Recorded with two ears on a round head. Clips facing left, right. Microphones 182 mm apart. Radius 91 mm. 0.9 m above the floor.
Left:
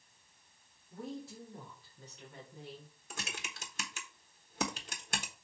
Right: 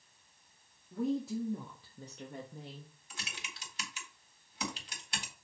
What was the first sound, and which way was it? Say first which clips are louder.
A woman speaking: right 11 dB; 70° right (ahead or behind).